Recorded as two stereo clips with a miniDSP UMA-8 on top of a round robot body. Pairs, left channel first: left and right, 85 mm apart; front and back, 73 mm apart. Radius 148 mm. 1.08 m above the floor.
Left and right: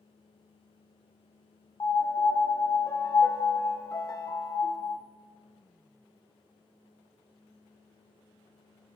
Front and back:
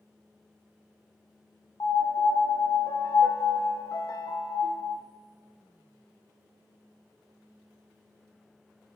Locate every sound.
1.8 s a piano: 40° left, 1.0 m